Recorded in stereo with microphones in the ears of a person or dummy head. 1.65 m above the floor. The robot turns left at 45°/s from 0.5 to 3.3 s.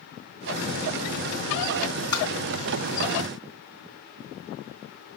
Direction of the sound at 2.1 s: 20° left (ahead or behind).